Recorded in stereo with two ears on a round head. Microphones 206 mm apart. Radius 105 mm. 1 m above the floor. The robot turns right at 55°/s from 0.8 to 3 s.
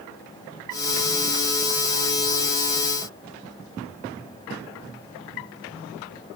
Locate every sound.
Only background noise.